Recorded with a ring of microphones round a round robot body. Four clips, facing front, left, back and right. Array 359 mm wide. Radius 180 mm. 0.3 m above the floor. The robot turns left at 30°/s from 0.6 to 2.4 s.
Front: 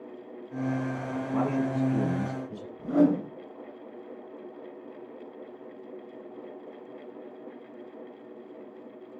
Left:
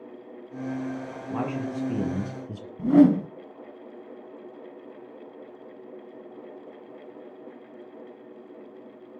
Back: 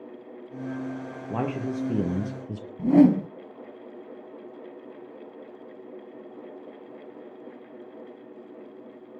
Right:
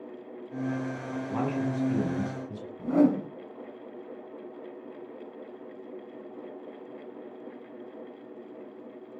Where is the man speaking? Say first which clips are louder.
Even, front 1 dB; straight behind, 6.5 m; by 2.7 s 145° left, 6.5 m.